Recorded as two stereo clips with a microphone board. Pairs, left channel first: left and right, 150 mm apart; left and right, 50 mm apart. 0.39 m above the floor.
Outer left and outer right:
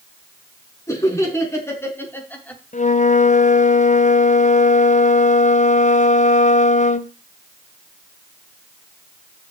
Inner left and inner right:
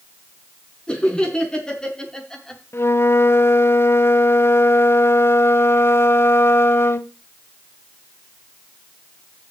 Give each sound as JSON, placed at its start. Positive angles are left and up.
{"t": 0.9, "sound": "laughter", "side_deg": 20, "distance_m": 4.5}
{"t": 2.7, "sound": "a flute", "side_deg": 55, "distance_m": 0.7}